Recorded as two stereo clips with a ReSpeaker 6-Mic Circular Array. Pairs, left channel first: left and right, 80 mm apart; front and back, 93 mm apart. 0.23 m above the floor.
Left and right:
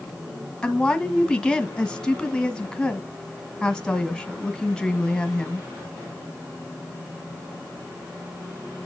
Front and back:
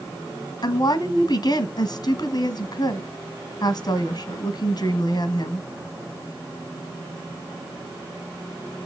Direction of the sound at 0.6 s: 10° left.